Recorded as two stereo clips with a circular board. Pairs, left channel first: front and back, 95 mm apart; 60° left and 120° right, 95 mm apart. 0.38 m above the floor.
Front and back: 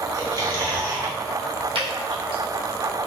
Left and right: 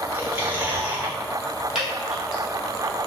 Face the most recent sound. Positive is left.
turn(degrees=155)